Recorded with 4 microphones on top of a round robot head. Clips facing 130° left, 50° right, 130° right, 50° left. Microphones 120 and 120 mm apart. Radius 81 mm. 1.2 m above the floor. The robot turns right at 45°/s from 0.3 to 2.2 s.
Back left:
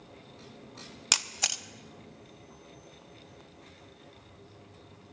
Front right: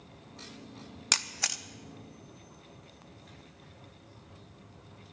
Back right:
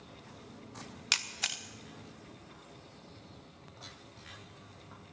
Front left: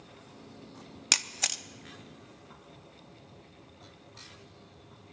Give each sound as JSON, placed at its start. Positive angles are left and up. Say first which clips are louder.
{"t": 1.1, "sound": "a camera shutter", "louder": "back left 1 dB, front left 5 dB", "azimuth_deg": 55, "distance_m": 0.7}